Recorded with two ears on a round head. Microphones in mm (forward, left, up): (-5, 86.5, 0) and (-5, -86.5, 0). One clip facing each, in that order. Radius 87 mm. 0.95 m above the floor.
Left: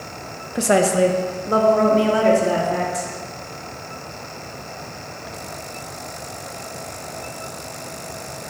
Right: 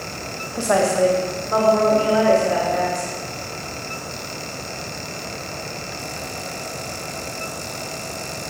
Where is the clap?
No clap in this recording.